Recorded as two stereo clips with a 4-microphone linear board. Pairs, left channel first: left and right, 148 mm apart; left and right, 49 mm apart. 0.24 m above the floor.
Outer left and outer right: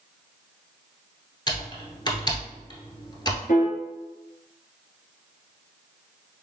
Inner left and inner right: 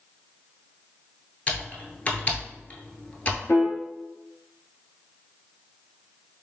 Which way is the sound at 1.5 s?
30° left (ahead or behind).